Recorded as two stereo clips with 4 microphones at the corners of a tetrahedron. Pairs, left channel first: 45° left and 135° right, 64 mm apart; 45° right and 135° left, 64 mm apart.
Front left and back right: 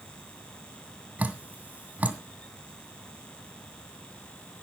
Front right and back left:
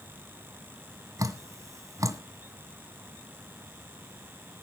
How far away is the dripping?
About 1.7 m.